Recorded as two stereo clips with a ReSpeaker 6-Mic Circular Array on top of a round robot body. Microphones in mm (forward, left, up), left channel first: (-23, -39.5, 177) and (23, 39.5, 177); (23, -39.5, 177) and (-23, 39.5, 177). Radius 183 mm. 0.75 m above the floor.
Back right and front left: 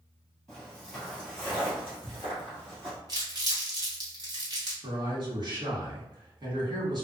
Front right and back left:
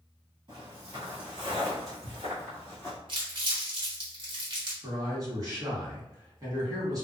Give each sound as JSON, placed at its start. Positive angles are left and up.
{"t": 0.5, "sound": "footsteps", "azimuth_deg": 160, "distance_m": 1.4}
{"t": 3.1, "sound": "crumpling", "azimuth_deg": 100, "distance_m": 1.4}
{"t": 4.8, "sound": "a man speaking", "azimuth_deg": 80, "distance_m": 1.7}